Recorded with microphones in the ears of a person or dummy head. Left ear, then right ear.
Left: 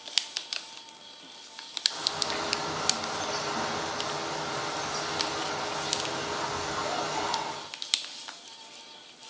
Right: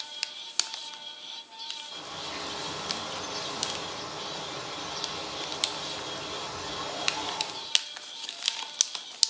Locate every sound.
1.9 s a bird: 55° left (ahead or behind), 7 m